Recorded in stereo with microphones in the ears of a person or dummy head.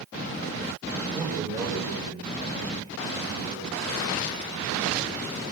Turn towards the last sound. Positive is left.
turn(degrees=-35)  # may be behind; listen again after turning